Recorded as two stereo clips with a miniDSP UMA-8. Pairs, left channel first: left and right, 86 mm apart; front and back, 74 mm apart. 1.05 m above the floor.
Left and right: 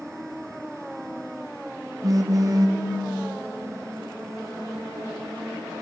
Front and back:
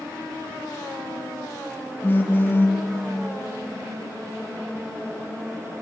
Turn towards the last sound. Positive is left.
turn(degrees=-55)